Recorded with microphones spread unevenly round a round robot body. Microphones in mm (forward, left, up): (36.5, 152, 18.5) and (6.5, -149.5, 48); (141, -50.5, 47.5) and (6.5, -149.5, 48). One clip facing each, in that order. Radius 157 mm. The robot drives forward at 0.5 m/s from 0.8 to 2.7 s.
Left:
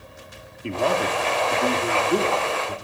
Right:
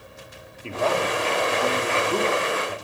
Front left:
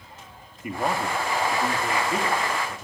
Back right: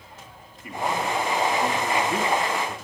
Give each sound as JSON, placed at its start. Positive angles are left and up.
{"t": 0.6, "sound": "a man speaking", "azimuth_deg": 60, "distance_m": 1.0}